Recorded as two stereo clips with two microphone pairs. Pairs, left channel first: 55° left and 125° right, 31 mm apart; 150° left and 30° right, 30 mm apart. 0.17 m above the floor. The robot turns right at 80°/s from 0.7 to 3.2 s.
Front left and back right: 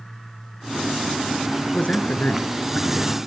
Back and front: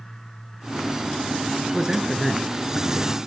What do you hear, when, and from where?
1.7 s a man speaking: 25° left, 2.5 m; by 3.2 s 145° left, 2.5 m